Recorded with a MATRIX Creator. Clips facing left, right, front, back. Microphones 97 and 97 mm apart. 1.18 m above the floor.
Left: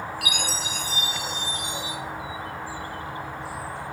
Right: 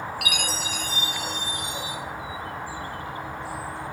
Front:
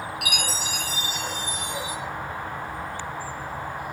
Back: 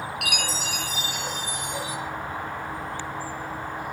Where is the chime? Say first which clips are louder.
Even, even; 150° left, 3 m.